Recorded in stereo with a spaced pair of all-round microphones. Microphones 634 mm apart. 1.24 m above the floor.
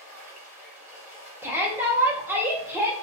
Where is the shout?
5° right (ahead or behind), 0.5 m.